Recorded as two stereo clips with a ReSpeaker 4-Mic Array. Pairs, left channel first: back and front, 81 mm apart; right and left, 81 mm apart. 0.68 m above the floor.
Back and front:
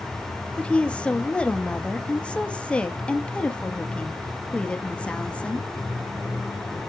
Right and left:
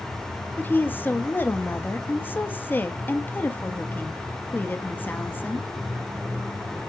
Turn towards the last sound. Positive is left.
turn(degrees=-120)